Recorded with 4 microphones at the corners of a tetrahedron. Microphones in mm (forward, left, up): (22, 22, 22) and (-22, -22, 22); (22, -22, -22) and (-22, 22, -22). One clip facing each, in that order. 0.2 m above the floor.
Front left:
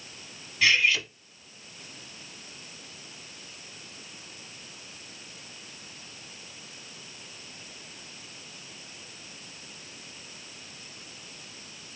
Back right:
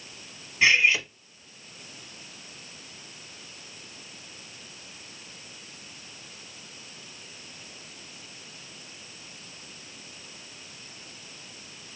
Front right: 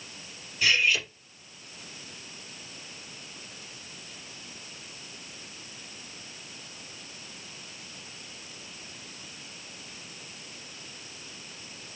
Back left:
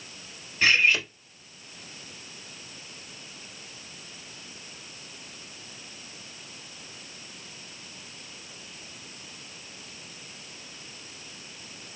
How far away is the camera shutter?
I don't hear a camera shutter.